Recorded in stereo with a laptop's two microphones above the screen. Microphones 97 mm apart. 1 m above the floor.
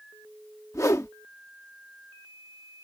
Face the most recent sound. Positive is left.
turn(degrees=35)  # may be behind; listen again after turning